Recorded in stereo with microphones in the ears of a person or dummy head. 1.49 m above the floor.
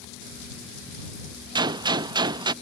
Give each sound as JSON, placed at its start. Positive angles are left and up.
{"t": 1.6, "sound": "a gunshot", "side_deg": -25}